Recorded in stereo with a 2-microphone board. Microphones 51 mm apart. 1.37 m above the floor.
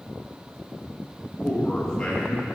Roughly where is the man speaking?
Centre.